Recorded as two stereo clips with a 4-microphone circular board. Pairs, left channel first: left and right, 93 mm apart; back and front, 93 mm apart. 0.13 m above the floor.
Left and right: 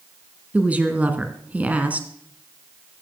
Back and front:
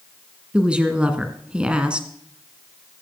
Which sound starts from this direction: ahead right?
A woman speaking, at 0.5 s.